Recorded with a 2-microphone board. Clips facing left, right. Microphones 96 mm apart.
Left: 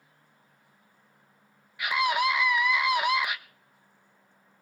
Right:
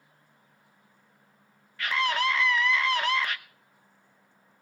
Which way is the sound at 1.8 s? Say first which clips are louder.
Left 2 dB; 15° left (ahead or behind).